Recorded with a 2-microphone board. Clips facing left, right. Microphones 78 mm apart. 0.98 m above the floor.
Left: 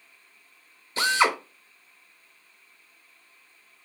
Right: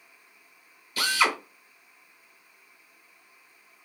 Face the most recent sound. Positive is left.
turn(degrees=25)  # may be behind; listen again after turning